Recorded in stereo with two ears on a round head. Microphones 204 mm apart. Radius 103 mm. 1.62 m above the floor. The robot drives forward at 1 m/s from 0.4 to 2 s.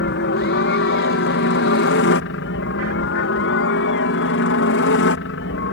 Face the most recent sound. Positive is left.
turn(degrees=55)  # may be behind; listen again after turning